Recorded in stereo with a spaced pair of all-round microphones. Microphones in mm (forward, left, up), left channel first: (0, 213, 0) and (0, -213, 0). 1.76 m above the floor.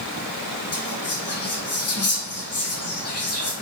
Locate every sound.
0.7 s whispering: 35° left (ahead or behind), 0.5 m